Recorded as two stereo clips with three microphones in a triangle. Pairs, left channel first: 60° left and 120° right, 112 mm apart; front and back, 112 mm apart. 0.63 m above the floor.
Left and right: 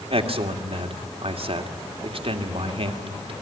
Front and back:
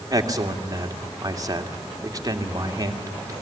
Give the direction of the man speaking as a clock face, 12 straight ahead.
4 o'clock.